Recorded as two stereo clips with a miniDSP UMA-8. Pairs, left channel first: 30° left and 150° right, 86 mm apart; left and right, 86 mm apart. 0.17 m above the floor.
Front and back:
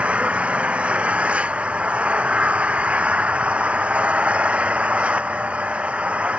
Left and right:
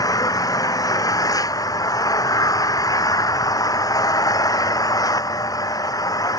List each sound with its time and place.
0.0 s an engine running: 135° left